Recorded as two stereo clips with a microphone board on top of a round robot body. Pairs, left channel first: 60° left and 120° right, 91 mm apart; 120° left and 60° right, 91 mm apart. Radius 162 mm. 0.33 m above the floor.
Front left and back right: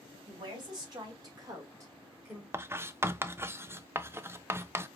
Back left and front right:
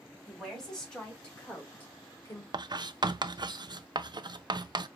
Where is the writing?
65° right, 0.6 m.